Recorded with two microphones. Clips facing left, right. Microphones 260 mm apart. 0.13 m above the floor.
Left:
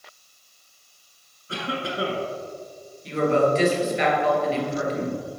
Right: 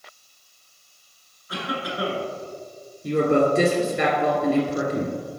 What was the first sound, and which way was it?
A cough, 30° left (ahead or behind).